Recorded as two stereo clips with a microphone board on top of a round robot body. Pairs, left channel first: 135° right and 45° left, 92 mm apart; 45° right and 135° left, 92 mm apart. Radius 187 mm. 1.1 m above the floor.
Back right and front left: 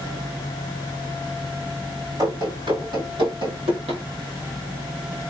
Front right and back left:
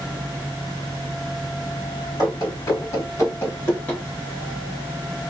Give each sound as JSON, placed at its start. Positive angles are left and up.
{"t": 2.2, "sound": "running footsteps", "azimuth_deg": 5, "distance_m": 3.0}